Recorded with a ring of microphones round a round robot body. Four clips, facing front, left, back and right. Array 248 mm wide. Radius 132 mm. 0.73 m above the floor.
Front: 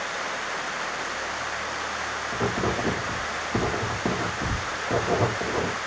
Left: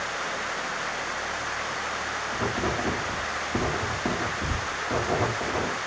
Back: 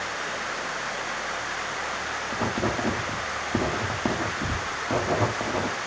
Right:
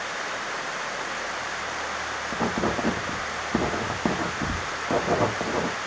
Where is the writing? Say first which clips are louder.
Right 3 dB, front 1 dB; 115° right, 1.1 m.